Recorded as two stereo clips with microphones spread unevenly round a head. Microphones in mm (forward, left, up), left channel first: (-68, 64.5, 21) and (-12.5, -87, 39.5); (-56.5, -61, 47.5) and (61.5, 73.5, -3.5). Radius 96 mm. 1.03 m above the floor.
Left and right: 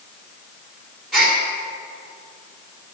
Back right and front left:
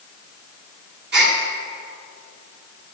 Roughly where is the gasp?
Ahead.